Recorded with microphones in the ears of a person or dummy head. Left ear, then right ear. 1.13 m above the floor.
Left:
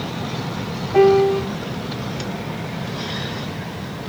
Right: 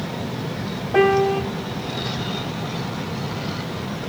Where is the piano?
40° right (ahead or behind), 0.9 m.